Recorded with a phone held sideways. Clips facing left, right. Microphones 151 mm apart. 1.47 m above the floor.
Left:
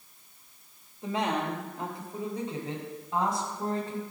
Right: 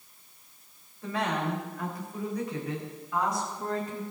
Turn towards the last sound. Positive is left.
turn(degrees=30)  # may be behind; listen again after turning